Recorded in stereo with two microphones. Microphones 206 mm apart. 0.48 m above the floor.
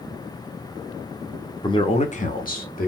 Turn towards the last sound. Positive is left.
turn(degrees=45)  # may be behind; listen again after turning